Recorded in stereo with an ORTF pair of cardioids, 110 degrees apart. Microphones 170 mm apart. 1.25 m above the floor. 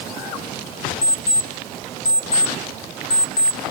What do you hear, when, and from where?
1.0 s an alarm clock: 20° left, 1.2 m